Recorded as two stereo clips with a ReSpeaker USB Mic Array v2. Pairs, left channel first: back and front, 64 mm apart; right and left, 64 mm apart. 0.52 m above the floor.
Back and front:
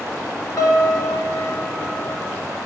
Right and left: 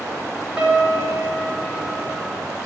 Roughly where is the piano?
Behind.